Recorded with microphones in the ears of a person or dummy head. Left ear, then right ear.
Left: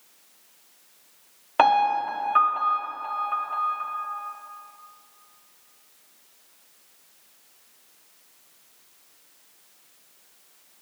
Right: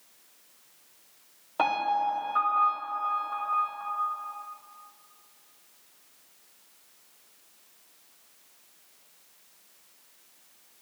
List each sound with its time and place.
1.6 s a piano: 50° left (ahead or behind), 1.5 m